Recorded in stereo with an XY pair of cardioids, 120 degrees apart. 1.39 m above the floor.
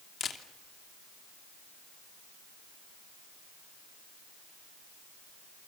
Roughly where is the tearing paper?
No tearing paper in this recording.